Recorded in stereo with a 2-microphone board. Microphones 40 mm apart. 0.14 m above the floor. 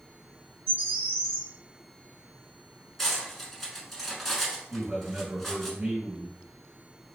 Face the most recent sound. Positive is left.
turn(degrees=-30)  # may be behind; listen again after turning